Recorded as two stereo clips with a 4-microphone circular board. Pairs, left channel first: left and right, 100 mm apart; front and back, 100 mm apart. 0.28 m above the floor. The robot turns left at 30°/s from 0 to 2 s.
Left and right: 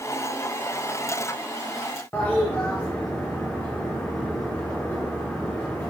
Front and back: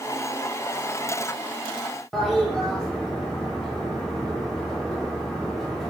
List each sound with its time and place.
2.1 s a toilet flushing: 80° left, 0.9 m